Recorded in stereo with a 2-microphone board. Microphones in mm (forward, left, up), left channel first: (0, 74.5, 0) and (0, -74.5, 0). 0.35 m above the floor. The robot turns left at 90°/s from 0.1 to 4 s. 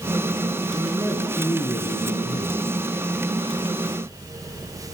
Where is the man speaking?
135° right, 3.5 m; by 2.6 s 55° left, 3.5 m.